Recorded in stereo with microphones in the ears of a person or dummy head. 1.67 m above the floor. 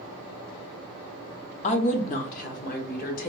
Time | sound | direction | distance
1.6 | a woman speaking | 30° left (ahead or behind) | 0.6 m